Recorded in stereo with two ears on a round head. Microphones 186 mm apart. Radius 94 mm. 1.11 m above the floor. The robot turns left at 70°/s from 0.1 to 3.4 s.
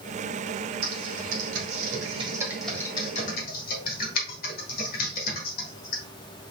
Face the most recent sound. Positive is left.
turn(degrees=45)  # may be behind; listen again after turning